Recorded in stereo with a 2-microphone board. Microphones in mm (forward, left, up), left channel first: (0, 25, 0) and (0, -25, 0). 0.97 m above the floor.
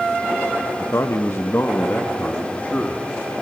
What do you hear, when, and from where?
0.8 s a man speaking: 60° left (ahead or behind), 1.1 m; by 3.0 s 30° left (ahead or behind), 2.5 m